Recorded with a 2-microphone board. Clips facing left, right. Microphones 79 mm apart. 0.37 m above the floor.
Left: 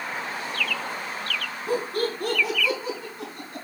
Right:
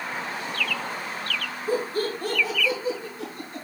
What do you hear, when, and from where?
1.7 s laughter: 70° left (ahead or behind), 4 m; by 3.6 s 55° left (ahead or behind), 4 m